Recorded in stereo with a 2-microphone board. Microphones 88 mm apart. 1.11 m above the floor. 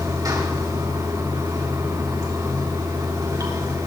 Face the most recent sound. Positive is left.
turn(degrees=-45)  # may be behind; listen again after turning